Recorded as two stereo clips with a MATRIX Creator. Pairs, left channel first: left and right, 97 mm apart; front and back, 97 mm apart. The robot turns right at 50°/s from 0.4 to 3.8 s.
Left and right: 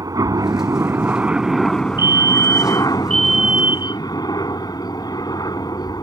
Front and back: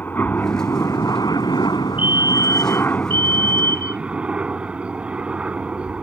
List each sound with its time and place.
0.0 s a helicopter: 65° right; by 6.0 s 105° left
2.0 s a fire alarm: 115° left; by 4.0 s 155° right